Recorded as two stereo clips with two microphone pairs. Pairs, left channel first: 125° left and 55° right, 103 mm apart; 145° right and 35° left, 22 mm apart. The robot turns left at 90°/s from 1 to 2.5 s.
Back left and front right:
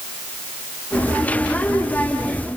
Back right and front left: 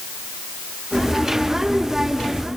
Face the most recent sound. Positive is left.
No sound to turn to.